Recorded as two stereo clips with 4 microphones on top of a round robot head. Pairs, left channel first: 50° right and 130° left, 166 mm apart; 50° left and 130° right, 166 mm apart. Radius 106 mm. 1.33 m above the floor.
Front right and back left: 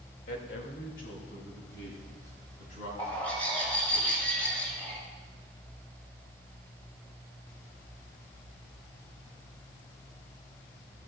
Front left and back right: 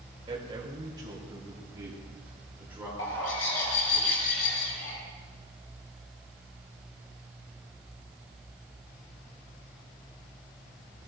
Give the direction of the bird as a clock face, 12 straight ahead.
11 o'clock.